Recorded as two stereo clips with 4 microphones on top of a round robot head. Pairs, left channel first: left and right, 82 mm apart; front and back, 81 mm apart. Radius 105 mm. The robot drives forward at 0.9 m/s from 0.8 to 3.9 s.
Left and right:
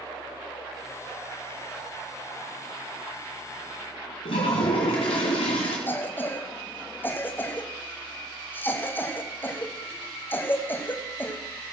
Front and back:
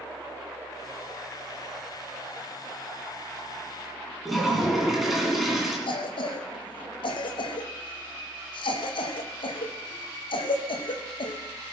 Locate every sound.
4.2 s a toilet flushing: 95° left, 2.0 m
5.9 s a cough: 20° left, 1.4 m